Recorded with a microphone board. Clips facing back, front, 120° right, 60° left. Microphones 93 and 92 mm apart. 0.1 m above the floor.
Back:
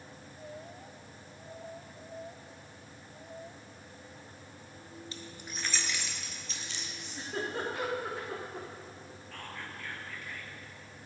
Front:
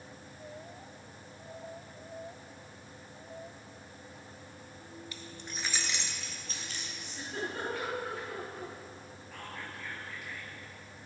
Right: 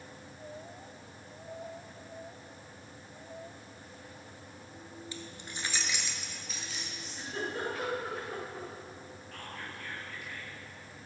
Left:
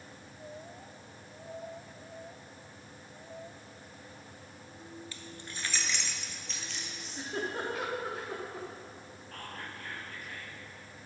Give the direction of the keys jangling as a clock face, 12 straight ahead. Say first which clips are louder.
Even, right 1 dB; 6 o'clock.